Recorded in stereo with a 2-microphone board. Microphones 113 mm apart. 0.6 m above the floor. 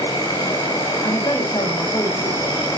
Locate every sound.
0.0 s an insect: 30° left (ahead or behind), 3.5 m
1.0 s a woman speaking: 20° left (ahead or behind), 2 m